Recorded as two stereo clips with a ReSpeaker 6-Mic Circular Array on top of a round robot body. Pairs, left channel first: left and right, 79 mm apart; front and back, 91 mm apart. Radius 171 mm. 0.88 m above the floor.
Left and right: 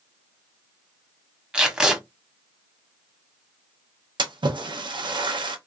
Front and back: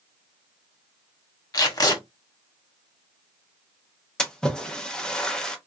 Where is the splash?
80° right, 0.7 m.